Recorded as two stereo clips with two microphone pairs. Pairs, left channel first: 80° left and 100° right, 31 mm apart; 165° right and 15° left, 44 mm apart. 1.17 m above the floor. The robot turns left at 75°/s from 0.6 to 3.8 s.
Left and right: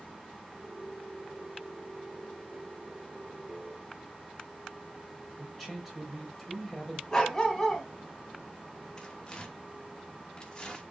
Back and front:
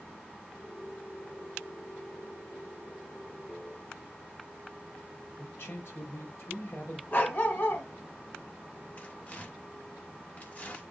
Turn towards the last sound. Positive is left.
turn(degrees=140)